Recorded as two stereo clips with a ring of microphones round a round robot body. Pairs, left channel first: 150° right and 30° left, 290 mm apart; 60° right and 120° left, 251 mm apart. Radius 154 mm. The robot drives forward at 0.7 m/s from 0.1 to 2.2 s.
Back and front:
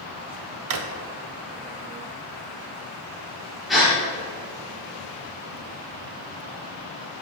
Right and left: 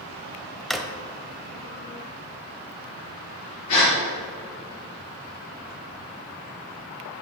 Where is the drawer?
30° left, 0.9 m; by 0.9 s 35° left, 0.8 m.